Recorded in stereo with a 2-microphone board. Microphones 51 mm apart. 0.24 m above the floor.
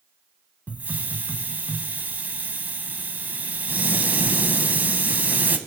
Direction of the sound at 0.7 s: 35° right (ahead or behind).